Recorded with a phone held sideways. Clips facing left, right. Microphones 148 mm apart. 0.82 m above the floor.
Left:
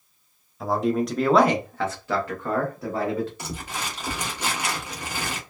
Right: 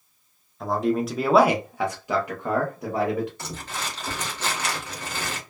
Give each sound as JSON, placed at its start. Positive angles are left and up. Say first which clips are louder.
{"t": 0.6, "sound": "a man speaking", "louder": "even", "side_deg": 0, "distance_m": 0.7}
{"t": 3.4, "sound": "crumpling", "louder": "left 1 dB", "side_deg": 15, "distance_m": 0.8}